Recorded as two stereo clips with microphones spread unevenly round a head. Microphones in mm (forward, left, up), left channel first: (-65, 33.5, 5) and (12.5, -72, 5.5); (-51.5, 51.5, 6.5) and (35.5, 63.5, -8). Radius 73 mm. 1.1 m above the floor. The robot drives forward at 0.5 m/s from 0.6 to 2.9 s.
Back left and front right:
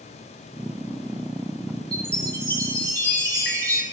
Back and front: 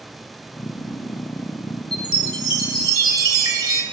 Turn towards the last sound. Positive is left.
turn(degrees=55)